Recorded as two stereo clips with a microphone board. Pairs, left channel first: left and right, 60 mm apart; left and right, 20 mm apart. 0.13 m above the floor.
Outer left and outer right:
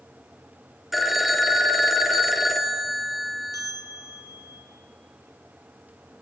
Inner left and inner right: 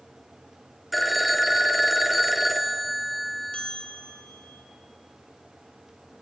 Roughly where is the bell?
Left.